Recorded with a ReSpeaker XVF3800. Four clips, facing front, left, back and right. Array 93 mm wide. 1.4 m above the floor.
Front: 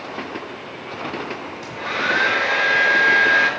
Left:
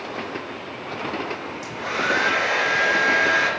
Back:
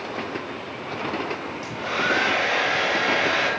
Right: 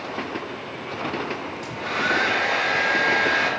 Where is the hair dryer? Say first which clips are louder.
Even, front 2 dB; 15° left, 4 m.